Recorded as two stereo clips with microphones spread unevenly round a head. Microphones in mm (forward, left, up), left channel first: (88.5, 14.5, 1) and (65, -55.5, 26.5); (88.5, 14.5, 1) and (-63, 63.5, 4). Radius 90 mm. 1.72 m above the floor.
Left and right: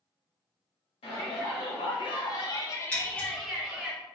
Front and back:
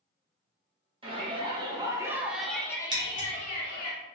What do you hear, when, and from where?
1.0 s a shout: 105° left, 1.4 m; by 3.9 s 45° right, 1.0 m
2.9 s scissors: 170° left, 0.9 m